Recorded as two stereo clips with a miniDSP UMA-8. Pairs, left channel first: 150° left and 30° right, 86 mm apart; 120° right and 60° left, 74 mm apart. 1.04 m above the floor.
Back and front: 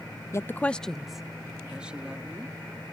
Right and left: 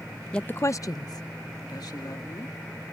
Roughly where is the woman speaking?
Behind.